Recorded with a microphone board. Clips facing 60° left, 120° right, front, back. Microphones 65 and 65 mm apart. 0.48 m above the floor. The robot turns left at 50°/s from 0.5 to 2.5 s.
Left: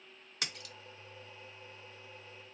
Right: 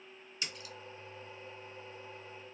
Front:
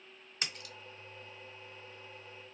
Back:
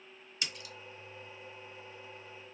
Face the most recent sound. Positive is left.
turn(degrees=-55)